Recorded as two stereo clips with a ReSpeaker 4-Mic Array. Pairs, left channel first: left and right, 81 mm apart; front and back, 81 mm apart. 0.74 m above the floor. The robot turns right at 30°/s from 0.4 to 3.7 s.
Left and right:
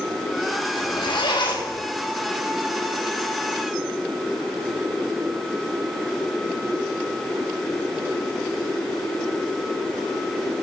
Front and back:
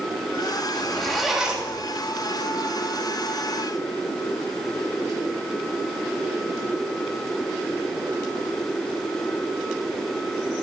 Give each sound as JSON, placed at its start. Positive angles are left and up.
{"t": 0.8, "sound": "a zipper", "azimuth_deg": 75, "distance_m": 3.5}